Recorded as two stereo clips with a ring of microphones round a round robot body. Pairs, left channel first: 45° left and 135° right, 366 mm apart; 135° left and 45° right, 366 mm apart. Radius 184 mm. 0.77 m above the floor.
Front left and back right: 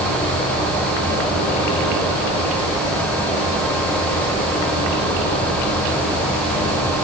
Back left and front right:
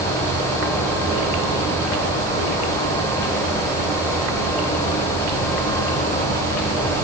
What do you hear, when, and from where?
Only background noise.